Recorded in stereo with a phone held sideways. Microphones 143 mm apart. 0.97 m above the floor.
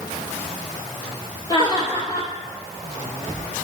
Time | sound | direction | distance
1.5 | laughter | 30° left (ahead or behind) | 2.0 m